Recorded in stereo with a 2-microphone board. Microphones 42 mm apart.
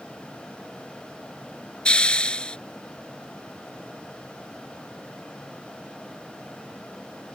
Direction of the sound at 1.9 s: 25° left (ahead or behind).